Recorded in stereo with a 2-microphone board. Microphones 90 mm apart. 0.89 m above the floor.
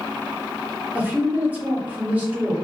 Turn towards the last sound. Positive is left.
turn(degrees=-20)  # may be behind; listen again after turning